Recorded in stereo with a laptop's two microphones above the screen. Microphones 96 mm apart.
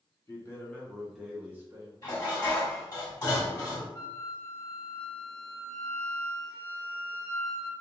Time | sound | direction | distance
0.3 | a man speaking | 30° left (ahead or behind) | 0.7 m
2.0 | dishes clattering | 40° left (ahead or behind) | 1.7 m
3.9 | a flute | 30° left (ahead or behind) | 0.8 m